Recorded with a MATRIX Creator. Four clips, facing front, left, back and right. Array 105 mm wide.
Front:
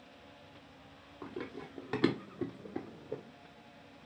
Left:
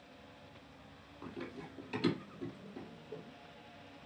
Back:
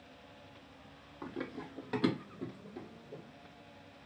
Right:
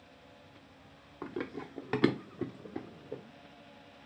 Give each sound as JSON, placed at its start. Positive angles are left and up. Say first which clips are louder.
{"t": 1.2, "sound": "running footsteps", "louder": "right 7 dB, back 1 dB", "azimuth_deg": -95, "distance_m": 1.3}